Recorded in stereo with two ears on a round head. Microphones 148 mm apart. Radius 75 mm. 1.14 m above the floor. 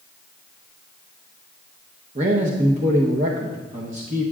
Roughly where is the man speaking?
Right.